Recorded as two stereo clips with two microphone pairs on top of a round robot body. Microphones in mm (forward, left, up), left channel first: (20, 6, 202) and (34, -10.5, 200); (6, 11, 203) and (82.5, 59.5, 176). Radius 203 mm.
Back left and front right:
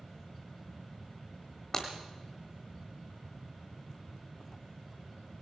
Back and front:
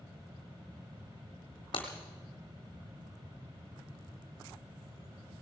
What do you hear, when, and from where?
1.7 s breaking glass: 170° right, 0.8 m